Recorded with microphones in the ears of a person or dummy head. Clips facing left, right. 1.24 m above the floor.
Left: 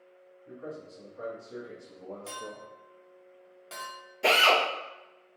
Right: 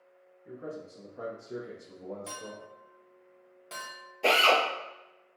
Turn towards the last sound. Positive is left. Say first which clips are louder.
# even
turn(degrees=15)  # may be behind; listen again after turning